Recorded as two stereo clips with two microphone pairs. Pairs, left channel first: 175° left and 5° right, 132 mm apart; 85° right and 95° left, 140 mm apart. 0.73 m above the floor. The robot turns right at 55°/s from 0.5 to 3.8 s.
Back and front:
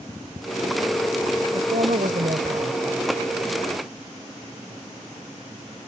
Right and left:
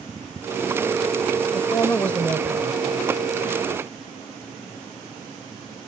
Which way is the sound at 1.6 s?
35° right.